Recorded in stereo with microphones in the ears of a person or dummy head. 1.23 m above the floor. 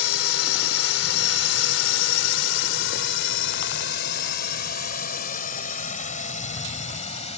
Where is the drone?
80° left; by 7.4 s 30° left (ahead or behind).